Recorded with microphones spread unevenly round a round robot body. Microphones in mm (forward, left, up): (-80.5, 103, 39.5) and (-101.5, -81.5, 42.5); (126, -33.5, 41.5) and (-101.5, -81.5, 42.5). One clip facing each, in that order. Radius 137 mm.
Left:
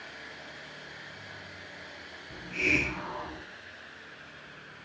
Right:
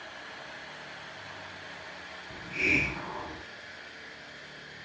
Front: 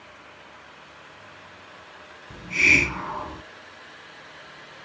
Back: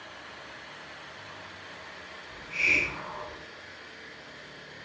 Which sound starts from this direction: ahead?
A hiss, at 2.3 s.